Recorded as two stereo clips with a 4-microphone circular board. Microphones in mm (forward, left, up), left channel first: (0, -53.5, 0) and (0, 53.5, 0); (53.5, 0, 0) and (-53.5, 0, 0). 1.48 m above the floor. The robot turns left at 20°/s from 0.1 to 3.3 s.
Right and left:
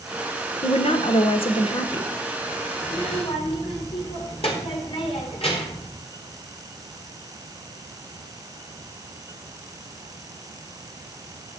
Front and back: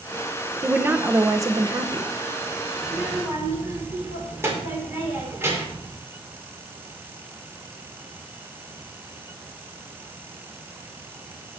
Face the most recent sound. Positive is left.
turn(degrees=-115)